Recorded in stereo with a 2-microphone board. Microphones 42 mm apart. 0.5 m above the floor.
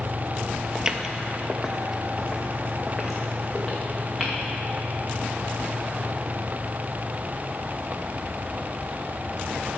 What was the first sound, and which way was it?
Footsteps, 15° right (ahead or behind).